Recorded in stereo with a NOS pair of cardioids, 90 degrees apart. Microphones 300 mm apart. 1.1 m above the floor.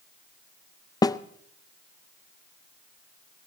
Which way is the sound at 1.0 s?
15° left.